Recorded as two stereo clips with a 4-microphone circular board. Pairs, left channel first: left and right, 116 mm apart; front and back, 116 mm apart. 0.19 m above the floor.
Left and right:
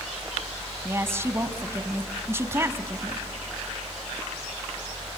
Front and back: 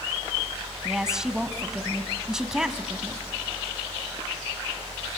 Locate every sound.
0.8 s a woman speaking: 100° right, 1.3 m